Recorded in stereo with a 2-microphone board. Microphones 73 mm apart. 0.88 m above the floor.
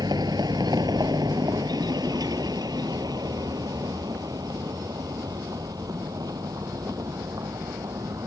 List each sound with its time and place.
0.0 s a vehicle: 75° right (ahead or behind); by 8.3 s 60° right (ahead or behind)